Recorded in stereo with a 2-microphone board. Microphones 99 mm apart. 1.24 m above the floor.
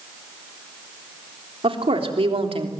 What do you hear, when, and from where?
1.6 s a woman speaking: 85° right, 3.5 m; by 2.7 s 80° right, 2.5 m